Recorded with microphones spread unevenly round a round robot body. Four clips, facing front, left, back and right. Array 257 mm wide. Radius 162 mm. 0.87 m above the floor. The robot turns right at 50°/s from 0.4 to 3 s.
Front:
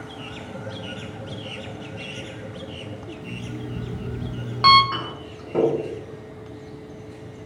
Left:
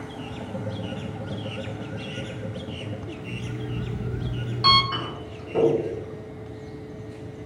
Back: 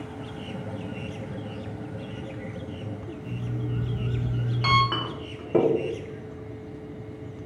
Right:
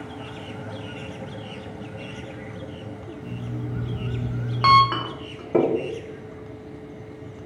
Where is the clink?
85° right, 0.6 m.